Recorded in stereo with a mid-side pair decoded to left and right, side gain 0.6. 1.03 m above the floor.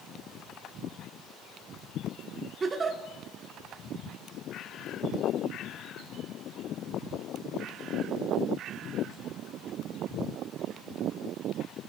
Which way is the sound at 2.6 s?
30° right.